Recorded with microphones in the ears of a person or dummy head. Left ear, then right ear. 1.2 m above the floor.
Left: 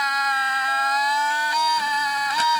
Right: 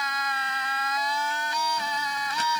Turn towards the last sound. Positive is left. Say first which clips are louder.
# left 5 dB
turn(degrees=25)  # may be behind; listen again after turning